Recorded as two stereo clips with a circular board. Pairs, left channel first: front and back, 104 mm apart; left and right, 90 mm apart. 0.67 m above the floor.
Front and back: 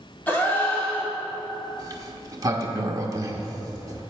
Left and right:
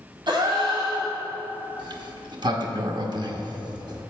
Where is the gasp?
70° right, 1.7 m.